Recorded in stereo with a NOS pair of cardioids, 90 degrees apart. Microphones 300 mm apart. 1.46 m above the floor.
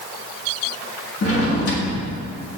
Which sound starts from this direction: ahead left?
A drawer, at 1.2 s.